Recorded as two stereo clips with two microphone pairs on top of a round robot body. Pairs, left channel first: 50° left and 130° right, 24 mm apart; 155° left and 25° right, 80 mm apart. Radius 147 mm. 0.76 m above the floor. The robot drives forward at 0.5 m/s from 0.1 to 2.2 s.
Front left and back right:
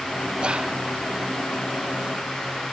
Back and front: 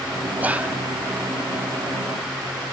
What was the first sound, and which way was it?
Whispering, 85° right.